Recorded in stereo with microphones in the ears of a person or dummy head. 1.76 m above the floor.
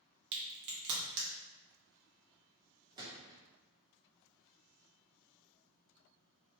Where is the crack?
60° right (ahead or behind), 0.8 m.